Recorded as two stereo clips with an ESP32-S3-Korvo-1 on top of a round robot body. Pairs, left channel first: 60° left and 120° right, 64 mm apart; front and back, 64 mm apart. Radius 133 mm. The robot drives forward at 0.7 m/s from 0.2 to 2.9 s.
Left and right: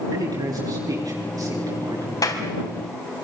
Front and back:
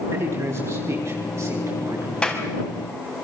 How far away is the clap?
About 4 m.